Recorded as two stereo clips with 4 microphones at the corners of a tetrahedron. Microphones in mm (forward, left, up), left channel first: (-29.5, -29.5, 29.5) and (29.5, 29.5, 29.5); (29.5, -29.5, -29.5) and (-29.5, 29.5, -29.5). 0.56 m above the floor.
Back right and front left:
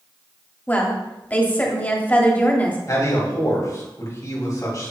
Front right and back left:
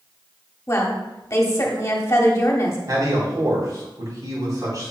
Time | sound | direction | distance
0.7 | a woman speaking | 75° right | 1.3 m
2.9 | a man speaking | straight behind | 3.5 m